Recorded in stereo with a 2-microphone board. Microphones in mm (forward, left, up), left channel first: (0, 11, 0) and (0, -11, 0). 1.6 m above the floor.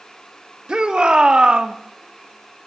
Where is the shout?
55° right (ahead or behind), 2 m; by 1.7 s 60° right (ahead or behind), 1.3 m.